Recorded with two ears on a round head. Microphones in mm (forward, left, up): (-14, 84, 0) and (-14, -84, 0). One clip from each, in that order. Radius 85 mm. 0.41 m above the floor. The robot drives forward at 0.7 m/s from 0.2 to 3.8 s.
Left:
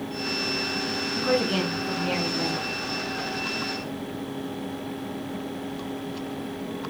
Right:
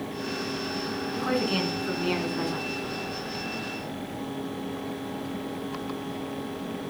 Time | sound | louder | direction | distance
1.1 | a woman speaking | left 3 dB | 20° right (ahead or behind) | 5 m